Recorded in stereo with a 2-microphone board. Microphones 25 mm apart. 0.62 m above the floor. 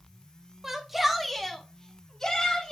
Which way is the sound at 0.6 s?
20° right (ahead or behind).